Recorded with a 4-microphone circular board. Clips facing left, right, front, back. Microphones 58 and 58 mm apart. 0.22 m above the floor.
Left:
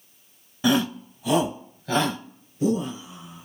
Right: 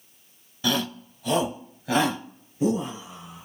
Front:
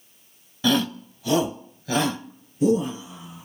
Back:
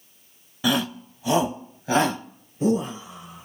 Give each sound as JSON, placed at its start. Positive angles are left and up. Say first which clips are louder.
{"t": 0.6, "sound": "a shout", "louder": "left 5 dB, front 2 dB", "azimuth_deg": 120, "distance_m": 1.3}